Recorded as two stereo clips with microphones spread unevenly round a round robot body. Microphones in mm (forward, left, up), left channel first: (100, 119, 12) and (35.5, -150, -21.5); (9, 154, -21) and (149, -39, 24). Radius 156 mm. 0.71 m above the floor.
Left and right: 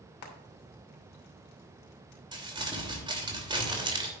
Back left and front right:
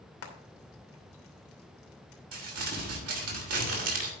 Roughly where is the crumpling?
Ahead right.